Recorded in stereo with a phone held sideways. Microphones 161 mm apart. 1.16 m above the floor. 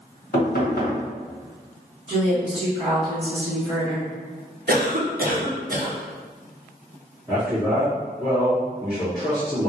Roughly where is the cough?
Right.